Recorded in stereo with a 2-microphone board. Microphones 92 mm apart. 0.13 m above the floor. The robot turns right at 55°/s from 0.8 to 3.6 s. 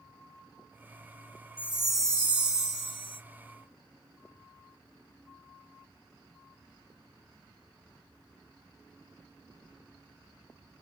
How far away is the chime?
About 1.6 m.